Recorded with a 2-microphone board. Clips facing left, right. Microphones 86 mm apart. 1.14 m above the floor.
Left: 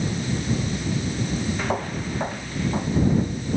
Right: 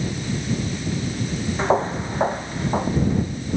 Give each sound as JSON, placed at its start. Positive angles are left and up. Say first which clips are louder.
{"t": 1.6, "sound": "footsteps", "louder": "right 6 dB", "side_deg": -30}